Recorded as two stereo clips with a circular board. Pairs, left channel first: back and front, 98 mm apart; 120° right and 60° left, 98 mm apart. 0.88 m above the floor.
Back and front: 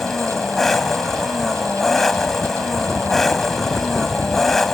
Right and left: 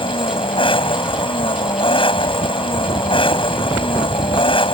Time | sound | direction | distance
0.0 | an engine running | 95° right | ?